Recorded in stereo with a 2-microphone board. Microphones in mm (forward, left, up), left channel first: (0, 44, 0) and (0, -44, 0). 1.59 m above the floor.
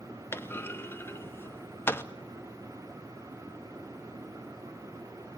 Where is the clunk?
25° left (ahead or behind), 0.7 m.